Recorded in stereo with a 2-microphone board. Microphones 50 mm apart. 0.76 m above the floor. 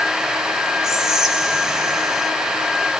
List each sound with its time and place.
0.8 s whispering: 10° right (ahead or behind), 0.6 m